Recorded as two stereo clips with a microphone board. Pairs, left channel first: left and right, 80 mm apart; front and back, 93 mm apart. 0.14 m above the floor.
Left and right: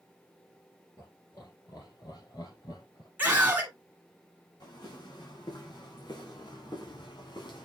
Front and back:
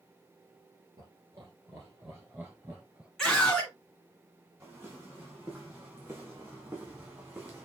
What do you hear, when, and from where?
1.0 s laughter: 135° left, 3 m; by 3.1 s 110° left, 2.5 m
3.2 s a scream: 75° right, 1.2 m
4.6 s footsteps: 120° left, 4.5 m; by 7.7 s 115° left, 3 m